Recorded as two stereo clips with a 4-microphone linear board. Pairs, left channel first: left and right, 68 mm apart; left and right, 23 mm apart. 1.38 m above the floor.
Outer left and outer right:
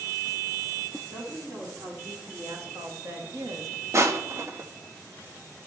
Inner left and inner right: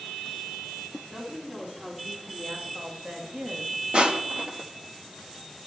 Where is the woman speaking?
45° right (ahead or behind), 4.5 m; by 3.8 s 65° right (ahead or behind), 2.0 m.